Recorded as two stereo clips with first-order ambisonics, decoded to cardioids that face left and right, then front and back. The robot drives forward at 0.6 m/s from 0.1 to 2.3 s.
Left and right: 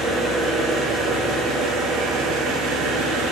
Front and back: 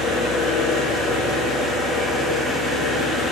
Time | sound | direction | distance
0.0 | an engine running | 30° right | 1.6 m